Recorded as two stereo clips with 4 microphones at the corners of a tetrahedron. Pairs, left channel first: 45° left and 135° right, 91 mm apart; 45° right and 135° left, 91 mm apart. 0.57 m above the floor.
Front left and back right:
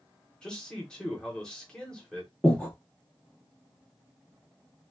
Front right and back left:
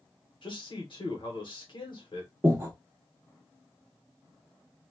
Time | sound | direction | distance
0.4 | a man speaking | 35° right | 1.2 m
2.4 | breathing | 110° left | 0.8 m